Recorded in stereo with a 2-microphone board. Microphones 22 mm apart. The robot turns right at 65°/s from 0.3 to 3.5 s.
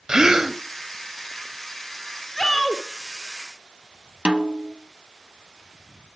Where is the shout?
170° left, 2.5 m; by 2.8 s 160° right, 2.5 m.